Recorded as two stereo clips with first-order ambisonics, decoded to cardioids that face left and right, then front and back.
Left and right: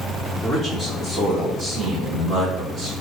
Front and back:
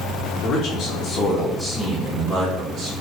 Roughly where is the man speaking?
Ahead.